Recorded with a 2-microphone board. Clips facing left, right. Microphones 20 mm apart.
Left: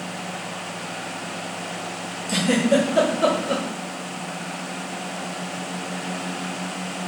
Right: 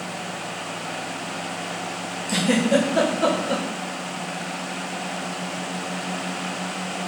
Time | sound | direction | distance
2.3 | a giggle | 5° right (ahead or behind) | 1.2 m